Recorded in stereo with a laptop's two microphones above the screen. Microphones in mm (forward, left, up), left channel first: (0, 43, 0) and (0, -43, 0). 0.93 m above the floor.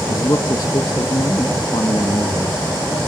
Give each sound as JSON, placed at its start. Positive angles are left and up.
{"t": 0.1, "sound": "a man speaking", "side_deg": 45, "distance_m": 1.5}